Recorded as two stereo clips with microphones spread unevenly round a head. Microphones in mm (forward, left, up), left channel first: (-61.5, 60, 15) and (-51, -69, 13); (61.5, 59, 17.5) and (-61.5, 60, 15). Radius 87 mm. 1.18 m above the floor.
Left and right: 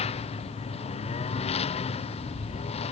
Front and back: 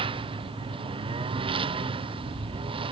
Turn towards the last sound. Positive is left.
turn(degrees=135)